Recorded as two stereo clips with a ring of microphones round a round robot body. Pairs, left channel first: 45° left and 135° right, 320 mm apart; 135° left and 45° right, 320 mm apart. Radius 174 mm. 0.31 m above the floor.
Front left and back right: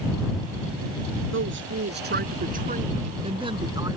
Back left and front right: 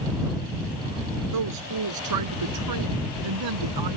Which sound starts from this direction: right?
A woman speaking, at 1.3 s.